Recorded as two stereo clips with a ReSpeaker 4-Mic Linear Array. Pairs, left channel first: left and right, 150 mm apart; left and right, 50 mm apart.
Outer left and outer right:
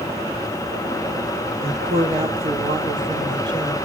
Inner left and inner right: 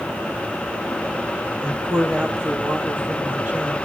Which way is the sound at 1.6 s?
45° right (ahead or behind).